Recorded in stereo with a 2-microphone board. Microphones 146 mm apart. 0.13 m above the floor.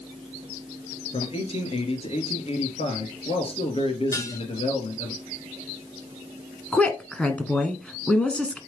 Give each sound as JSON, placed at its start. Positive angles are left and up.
{"t": 1.1, "sound": "a man speaking", "side_deg": 40, "distance_m": 2.0}
{"t": 4.1, "sound": "dishes clattering", "side_deg": 20, "distance_m": 1.3}
{"t": 6.7, "sound": "a woman speaking", "side_deg": 10, "distance_m": 1.1}